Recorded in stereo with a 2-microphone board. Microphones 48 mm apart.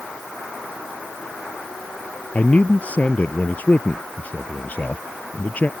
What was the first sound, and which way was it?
A man speaking, 35° left (ahead or behind).